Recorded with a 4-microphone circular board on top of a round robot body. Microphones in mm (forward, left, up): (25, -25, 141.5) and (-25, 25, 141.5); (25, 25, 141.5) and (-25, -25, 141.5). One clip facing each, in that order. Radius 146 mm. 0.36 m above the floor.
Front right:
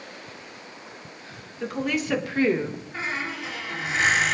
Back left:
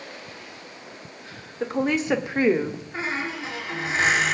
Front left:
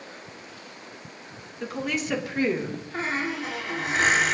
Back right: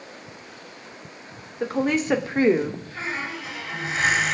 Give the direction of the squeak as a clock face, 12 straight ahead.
9 o'clock.